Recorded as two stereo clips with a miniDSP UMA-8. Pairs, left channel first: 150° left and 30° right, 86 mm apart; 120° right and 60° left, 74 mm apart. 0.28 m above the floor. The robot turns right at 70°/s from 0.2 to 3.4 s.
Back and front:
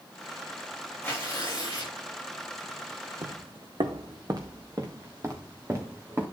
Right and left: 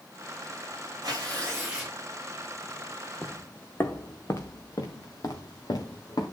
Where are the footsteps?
50° right, 1.2 m; by 6.2 s 90° right, 3.5 m.